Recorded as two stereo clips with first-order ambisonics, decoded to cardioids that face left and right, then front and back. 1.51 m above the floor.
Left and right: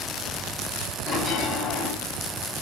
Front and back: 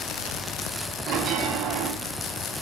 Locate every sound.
1.1 s a bell: 145° left, 2.5 m